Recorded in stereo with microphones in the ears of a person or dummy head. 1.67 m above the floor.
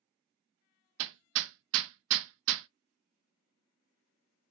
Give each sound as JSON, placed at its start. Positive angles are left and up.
{"t": 1.0, "sound": "hammering", "side_deg": -70, "distance_m": 0.5}